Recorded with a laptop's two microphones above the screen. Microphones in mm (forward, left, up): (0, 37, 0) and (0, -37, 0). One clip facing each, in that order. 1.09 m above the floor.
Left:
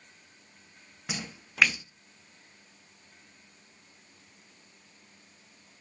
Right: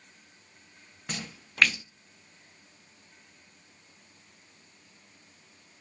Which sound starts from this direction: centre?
A splash, at 1.1 s.